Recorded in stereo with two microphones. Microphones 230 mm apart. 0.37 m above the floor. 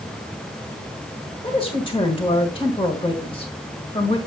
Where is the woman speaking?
20° left (ahead or behind), 1.5 m.